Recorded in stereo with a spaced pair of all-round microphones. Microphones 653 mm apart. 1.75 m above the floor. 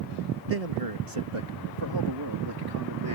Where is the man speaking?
60° right (ahead or behind); by 3.2 s 30° right (ahead or behind).